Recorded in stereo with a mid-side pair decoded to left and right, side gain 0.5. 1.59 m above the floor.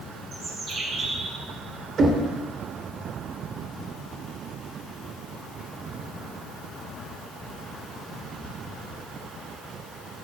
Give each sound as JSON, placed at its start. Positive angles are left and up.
{"t": 0.3, "sound": "a bird", "azimuth_deg": -50, "distance_m": 6.0}
{"t": 2.0, "sound": "knocking", "azimuth_deg": -45, "distance_m": 3.0}